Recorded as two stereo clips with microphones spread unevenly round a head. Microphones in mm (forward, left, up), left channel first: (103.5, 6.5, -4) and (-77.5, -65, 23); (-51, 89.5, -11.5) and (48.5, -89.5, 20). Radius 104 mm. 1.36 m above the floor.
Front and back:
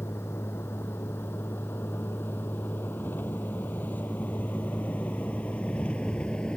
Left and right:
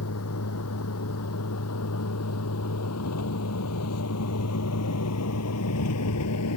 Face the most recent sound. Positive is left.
turn(degrees=110)